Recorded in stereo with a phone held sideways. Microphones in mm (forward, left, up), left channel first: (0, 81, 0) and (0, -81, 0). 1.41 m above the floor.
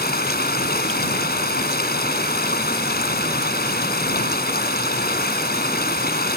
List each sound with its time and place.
0.0 s running water: 75° left (ahead or behind)